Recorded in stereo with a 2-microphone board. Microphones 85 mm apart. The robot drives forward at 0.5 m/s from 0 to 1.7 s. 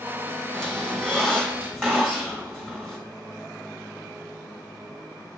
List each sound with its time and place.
0.5 s a squeak: 5° left (ahead or behind), 2.5 m